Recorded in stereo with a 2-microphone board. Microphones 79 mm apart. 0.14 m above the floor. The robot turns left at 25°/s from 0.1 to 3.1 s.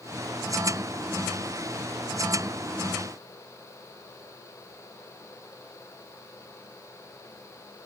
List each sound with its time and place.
Only background noise.